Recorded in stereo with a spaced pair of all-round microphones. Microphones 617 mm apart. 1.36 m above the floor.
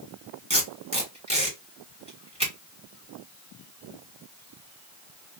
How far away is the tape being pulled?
About 2.5 m.